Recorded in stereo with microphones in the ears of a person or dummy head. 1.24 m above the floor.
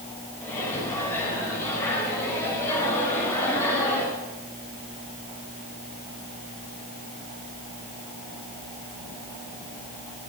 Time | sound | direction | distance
0.4 | a microwave | 15° left (ahead or behind) | 4.5 m